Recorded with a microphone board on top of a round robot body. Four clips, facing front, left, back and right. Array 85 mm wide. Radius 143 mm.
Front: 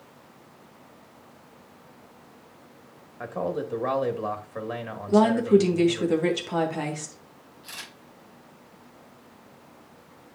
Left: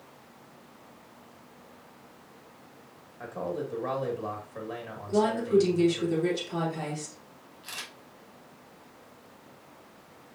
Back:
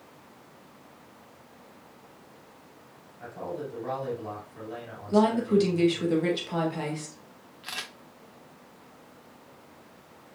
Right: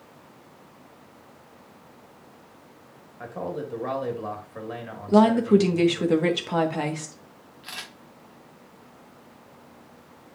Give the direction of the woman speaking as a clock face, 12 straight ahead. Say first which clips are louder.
Right 7 dB, front 4 dB; 2 o'clock.